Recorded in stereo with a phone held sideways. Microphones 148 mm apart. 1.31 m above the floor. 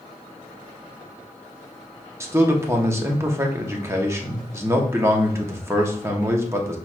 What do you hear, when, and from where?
2.2 s a man speaking: 20° right (ahead or behind), 0.9 m